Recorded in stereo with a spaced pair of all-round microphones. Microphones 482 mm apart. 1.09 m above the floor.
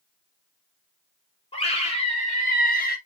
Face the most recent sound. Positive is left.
turn(degrees=20)  # may be behind; listen again after turning